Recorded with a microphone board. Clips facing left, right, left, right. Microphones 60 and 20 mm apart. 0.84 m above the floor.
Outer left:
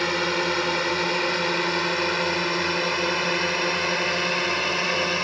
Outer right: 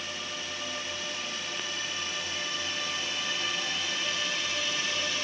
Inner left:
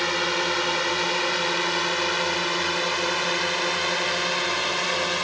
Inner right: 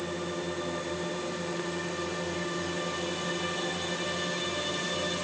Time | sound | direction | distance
0.0 | a drone | 60° left (ahead or behind) | ?